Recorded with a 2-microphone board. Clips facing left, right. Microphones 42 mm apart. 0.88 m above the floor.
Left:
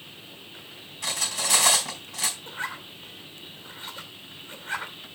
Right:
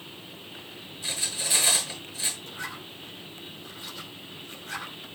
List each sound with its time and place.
1.0 s cutlery clinking: 75° left (ahead or behind), 4 m
2.5 s a zipper: 35° left (ahead or behind), 2.5 m